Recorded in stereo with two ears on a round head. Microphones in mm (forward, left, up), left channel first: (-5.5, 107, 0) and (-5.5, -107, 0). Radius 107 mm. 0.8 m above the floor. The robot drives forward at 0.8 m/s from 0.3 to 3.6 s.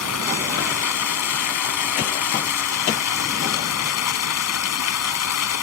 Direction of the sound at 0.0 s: 75° left (ahead or behind).